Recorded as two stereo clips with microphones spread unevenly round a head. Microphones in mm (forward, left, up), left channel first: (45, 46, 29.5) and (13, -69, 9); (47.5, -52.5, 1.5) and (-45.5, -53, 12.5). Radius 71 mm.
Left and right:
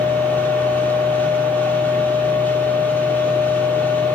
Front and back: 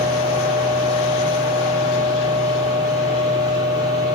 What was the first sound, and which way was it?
A machine running, straight ahead.